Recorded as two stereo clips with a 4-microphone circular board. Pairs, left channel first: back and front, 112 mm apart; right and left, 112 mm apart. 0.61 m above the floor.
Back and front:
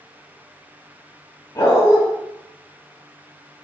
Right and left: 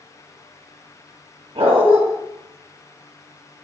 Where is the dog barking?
120° left, 1.7 m.